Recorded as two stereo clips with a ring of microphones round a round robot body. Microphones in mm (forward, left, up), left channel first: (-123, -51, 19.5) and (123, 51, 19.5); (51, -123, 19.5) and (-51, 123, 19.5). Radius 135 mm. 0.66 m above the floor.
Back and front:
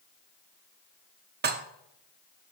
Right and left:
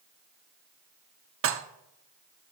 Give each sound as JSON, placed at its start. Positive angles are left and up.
{"t": 1.4, "sound": "dishes clattering", "azimuth_deg": 75, "distance_m": 0.8}